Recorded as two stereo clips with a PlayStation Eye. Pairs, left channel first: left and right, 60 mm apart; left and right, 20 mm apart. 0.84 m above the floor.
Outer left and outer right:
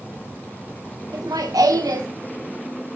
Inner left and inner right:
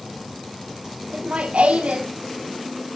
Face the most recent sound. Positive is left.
turn(degrees=-75)  # may be behind; listen again after turning